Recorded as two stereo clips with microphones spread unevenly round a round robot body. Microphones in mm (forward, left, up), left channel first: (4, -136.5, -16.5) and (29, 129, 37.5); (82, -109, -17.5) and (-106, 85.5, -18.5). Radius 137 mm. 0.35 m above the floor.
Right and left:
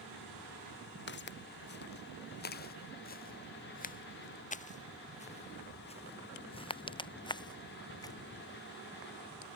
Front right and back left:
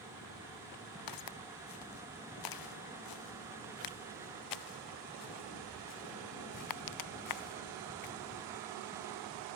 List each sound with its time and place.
1.1 s footsteps: 45° right; by 8.1 s 20° right